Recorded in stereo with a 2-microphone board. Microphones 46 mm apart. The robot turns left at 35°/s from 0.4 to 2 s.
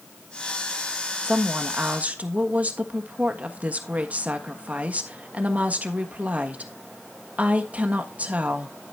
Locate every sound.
1.2 s a woman speaking: 15° right (ahead or behind), 1.4 m; by 8.8 s 30° right (ahead or behind), 1.4 m